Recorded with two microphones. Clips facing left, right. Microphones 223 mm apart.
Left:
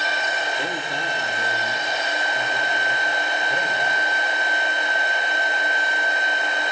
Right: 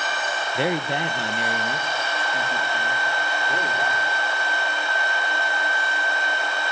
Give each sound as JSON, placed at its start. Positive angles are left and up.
{"t": 0.6, "sound": "a man speaking", "side_deg": -70, "distance_m": 1.4}